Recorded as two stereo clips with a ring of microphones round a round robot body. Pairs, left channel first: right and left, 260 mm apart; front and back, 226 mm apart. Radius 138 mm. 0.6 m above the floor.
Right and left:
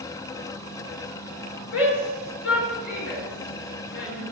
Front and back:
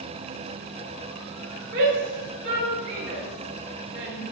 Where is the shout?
125° right, 8 m.